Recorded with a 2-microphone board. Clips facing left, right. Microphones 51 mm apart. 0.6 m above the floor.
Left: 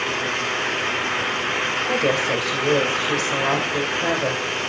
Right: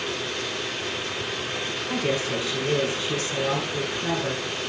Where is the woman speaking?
70° left (ahead or behind), 2 m.